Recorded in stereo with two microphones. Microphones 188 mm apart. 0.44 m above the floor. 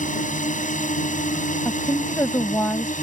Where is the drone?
45° left (ahead or behind); by 3.0 s 40° left (ahead or behind).